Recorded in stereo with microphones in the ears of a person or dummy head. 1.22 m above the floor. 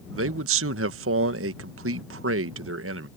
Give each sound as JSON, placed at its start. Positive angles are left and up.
{"t": 0.1, "sound": "a man speaking", "side_deg": -65}